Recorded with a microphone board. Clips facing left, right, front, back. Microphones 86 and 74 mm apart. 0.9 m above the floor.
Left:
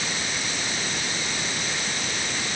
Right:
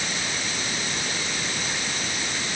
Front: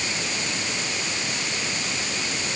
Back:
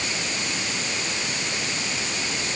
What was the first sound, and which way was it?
Only background noise.